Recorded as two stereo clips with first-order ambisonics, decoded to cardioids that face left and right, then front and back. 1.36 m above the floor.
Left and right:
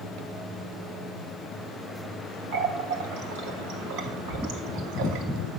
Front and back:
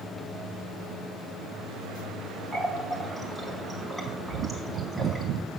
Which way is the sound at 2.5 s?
85° right.